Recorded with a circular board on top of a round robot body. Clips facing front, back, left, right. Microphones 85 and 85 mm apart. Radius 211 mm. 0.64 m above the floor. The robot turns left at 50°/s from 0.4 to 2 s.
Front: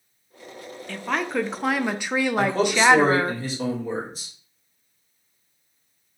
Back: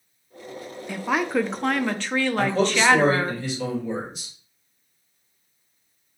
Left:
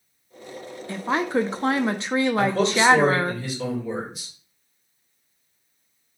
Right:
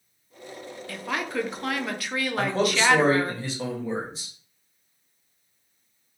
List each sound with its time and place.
0.9 s a woman speaking: 120° left, 0.5 m; by 3.4 s 65° left, 0.5 m
2.4 s a man speaking: 35° right, 1.6 m